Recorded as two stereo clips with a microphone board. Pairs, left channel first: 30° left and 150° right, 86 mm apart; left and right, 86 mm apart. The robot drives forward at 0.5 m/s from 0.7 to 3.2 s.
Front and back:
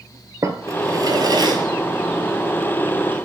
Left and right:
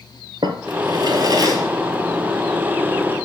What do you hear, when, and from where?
0.4 s a drawer: 105° right, 0.9 m; by 3.3 s 150° right, 1.7 m